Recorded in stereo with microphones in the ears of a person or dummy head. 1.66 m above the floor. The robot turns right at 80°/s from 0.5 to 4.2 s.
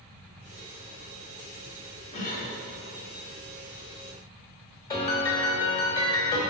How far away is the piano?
About 1.3 m.